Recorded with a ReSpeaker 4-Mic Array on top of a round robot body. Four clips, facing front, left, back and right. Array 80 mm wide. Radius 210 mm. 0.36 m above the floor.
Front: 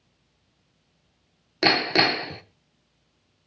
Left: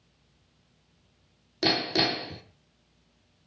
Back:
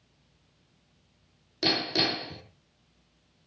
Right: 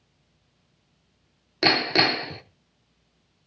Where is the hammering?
35° right, 1.2 m.